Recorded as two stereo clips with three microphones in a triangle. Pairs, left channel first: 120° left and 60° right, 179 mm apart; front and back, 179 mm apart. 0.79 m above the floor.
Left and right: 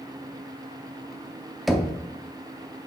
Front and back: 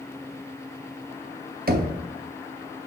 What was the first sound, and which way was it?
Knocking, 150° right.